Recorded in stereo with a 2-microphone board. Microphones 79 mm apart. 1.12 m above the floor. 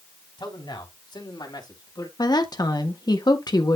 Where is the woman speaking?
60° left (ahead or behind), 1.5 m.